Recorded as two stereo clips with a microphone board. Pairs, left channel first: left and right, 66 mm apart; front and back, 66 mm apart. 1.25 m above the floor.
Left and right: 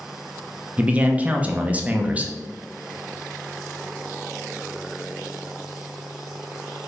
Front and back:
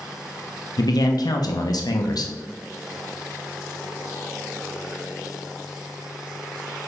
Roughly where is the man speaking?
Ahead.